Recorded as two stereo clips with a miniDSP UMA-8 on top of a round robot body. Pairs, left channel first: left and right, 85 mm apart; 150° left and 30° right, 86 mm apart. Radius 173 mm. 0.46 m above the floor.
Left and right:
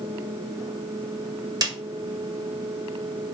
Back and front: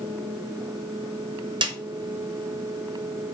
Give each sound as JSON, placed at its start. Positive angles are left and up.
{"t": 1.6, "sound": "a snare drum", "azimuth_deg": -50, "distance_m": 1.2}